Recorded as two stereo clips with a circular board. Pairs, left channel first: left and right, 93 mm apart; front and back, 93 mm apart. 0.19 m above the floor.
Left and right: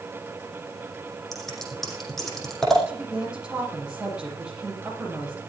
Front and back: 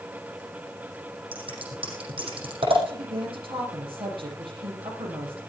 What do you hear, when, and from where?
1.3 s scissors: 175° left, 6 m
2.9 s a woman speaking: 170° right, 7 m